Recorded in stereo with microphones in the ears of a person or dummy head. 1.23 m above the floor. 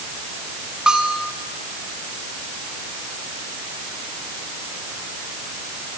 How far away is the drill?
I don't hear a drill.